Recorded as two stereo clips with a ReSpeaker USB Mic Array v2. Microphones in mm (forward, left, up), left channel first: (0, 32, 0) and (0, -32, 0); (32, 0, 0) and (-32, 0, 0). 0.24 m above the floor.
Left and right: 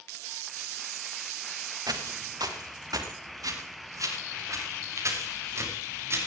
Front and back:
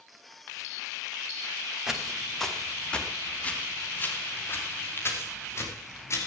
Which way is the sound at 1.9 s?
95° right.